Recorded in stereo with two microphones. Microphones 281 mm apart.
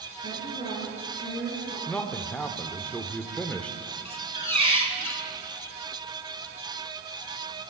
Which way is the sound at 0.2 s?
35° left (ahead or behind).